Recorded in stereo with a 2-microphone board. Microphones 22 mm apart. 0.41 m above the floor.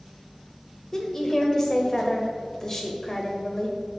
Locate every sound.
0.9 s a woman speaking: 25° left (ahead or behind), 1.4 m